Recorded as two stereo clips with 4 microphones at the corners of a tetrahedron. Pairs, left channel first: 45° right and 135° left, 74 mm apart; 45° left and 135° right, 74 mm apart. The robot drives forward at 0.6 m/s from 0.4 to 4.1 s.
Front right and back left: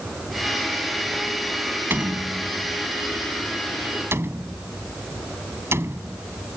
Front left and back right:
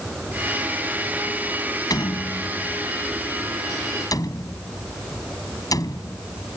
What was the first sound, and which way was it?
A door slam, 75° left.